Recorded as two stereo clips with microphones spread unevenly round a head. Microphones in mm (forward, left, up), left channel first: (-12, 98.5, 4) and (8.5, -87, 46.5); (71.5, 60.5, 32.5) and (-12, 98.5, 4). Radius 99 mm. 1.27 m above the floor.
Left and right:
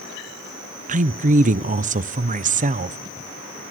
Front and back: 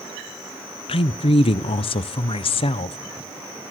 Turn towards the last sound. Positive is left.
turn(degrees=-35)